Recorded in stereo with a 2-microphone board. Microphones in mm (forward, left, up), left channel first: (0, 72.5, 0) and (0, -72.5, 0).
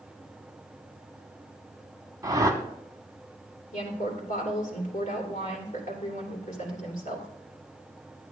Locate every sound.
2.2 s a whoosh: 25° right (ahead or behind), 1.0 m
3.7 s a woman speaking: 60° left (ahead or behind), 2.5 m